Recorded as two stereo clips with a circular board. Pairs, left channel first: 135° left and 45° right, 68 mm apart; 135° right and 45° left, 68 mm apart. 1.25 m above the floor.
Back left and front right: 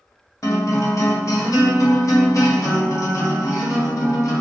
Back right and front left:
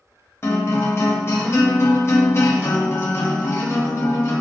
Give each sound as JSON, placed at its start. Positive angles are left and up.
{"t": 0.4, "sound": "a guitar", "azimuth_deg": 175, "distance_m": 0.8}